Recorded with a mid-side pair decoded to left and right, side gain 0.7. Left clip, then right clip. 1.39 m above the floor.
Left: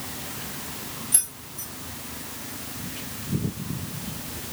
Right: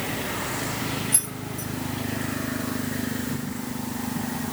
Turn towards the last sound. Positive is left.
turn(degrees=5)